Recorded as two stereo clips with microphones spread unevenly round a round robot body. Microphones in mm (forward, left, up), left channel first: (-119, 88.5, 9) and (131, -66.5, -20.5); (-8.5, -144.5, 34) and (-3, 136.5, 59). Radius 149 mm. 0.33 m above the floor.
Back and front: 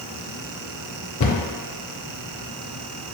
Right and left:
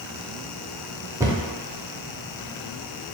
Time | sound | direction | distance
1.2 | a cupboard door | 170° left | 0.6 m